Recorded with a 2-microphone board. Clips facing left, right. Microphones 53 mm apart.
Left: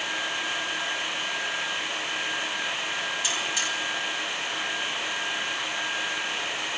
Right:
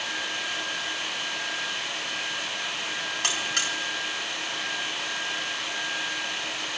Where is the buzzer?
65° right (ahead or behind), 5 m.